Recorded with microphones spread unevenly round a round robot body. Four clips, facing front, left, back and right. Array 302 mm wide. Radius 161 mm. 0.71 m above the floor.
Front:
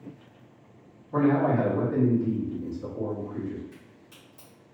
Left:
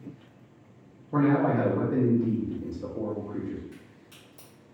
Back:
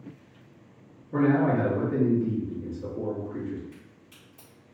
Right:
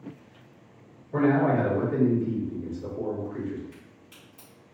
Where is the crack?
135° left, 1.5 m.